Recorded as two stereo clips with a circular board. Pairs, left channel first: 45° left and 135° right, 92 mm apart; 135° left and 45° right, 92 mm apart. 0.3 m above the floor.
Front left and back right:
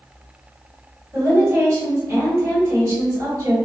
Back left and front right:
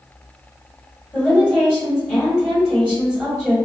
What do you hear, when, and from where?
1.1 s a woman speaking: 150° right, 1.4 m